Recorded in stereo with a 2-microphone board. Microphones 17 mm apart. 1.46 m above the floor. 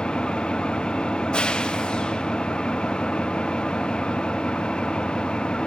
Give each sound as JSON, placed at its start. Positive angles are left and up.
{"t": 0.0, "sound": "an engine running", "side_deg": 70, "distance_m": 1.1}